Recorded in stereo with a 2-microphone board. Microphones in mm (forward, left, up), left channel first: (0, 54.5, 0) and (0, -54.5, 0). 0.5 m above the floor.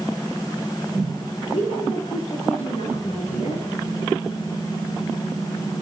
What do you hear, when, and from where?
1.5 s a woman speaking: 75° left (ahead or behind), 10 m